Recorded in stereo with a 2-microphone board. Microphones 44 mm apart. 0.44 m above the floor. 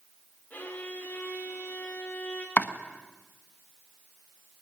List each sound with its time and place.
0.5 s a violin: 40° left (ahead or behind), 6.5 m
2.6 s chopping: 35° left (ahead or behind), 1.4 m